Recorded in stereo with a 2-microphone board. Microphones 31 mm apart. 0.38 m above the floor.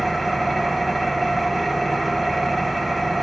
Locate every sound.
0.0 s an engine running: 5° right (ahead or behind), 0.9 m